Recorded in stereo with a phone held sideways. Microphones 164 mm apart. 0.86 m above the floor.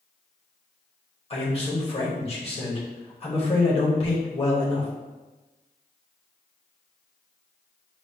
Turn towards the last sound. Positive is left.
turn(degrees=35)  # may be behind; listen again after turning